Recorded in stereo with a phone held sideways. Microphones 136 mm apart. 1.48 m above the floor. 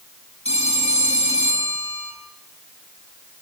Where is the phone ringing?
50° left (ahead or behind), 10 m.